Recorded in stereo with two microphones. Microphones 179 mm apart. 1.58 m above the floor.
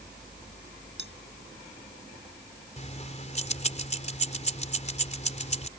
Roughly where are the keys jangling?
Left.